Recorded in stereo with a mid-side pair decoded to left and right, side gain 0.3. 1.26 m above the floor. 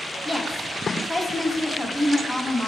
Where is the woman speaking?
20° left, 3 m.